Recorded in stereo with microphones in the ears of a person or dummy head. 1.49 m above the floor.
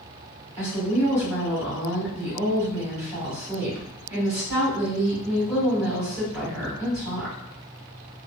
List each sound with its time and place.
0.6 s a woman speaking: 10° right (ahead or behind), 1.8 m